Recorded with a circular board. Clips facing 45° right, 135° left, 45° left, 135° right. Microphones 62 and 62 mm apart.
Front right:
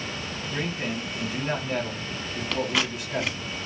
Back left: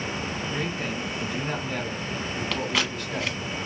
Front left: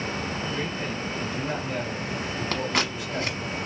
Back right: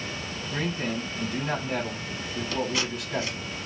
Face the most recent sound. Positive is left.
turn(degrees=45)